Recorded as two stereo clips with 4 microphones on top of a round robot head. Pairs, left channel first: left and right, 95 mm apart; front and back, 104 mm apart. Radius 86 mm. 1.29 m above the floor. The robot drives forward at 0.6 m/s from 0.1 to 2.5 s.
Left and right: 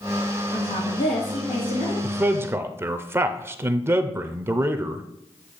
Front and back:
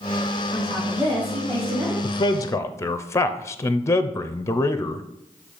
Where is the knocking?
I don't hear knocking.